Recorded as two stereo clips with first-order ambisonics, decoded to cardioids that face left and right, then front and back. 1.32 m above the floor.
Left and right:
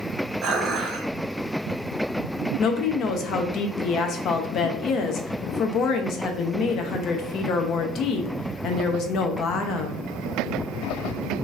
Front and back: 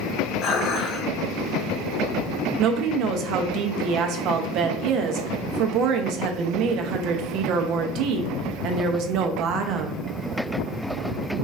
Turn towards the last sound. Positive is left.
turn(degrees=140)